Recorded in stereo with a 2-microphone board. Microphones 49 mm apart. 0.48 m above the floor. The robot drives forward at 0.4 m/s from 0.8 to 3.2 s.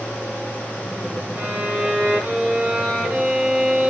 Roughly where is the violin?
Right.